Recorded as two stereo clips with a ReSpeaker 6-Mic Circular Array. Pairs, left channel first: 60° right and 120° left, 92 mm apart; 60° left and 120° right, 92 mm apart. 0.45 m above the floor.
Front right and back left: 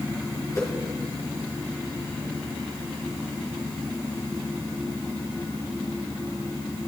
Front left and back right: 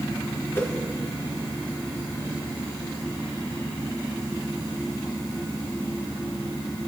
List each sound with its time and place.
0.6 s a whoosh: 5° right, 4.5 m